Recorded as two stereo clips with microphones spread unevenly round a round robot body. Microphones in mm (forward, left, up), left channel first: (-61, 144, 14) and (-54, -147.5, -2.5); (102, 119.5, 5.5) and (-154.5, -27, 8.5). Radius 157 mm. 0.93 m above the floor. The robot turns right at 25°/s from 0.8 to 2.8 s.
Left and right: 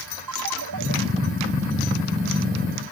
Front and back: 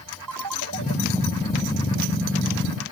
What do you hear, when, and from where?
0.3 s a ringtone: 115° right; by 0.9 s 110° right